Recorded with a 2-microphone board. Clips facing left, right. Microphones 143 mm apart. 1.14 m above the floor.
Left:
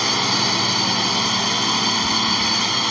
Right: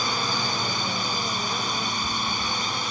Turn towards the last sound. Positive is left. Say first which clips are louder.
# left 5 dB
turn(degrees=80)